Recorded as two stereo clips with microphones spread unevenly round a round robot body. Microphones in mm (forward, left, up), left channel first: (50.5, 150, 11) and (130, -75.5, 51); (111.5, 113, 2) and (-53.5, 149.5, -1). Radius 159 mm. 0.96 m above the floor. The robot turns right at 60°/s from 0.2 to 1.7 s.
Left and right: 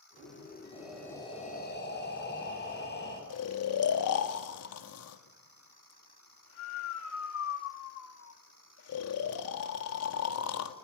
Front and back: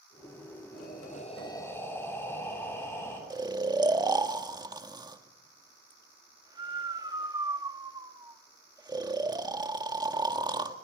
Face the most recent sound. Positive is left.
turn(degrees=100)